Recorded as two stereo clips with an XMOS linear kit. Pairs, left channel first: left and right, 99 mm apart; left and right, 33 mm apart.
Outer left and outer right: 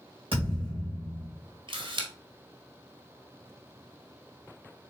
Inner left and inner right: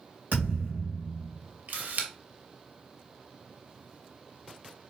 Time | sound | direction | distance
0.3 | a thud | 70° right (ahead or behind) | 2.5 m
1.7 | a camera shutter | 60° right (ahead or behind) | 1.1 m